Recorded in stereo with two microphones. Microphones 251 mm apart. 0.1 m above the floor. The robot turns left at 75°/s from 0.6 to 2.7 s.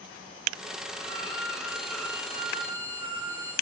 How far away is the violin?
About 5 m.